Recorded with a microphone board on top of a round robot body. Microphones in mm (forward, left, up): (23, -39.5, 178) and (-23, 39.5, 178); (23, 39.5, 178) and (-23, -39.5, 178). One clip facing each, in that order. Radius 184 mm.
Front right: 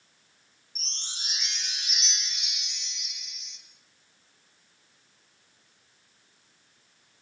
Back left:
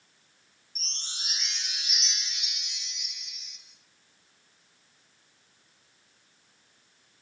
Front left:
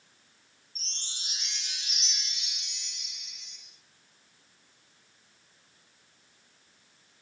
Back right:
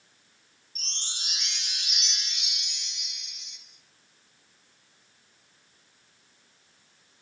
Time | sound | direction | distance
0.8 | a chime | 150° right | 5.5 m